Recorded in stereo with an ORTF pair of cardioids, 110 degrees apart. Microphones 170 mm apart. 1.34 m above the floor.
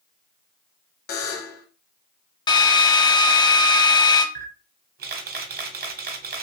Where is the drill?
25° left, 0.5 m.